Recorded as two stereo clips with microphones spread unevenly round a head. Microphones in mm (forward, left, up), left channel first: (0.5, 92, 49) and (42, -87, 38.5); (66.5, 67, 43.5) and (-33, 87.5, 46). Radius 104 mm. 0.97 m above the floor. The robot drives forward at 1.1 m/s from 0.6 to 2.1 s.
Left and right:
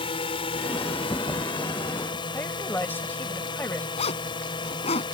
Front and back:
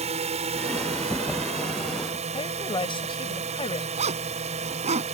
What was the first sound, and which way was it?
A drone, 165° left.